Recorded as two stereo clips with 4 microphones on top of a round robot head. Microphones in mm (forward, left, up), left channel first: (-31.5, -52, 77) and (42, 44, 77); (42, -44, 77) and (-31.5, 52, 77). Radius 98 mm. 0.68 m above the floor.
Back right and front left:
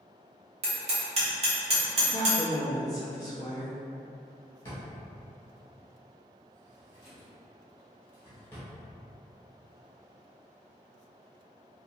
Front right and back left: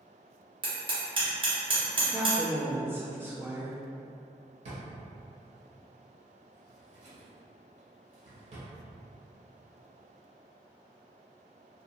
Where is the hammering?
85° left, 1.1 m.